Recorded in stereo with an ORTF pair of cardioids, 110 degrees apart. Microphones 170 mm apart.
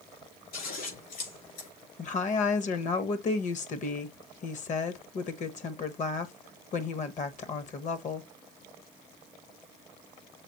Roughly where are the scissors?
Ahead left.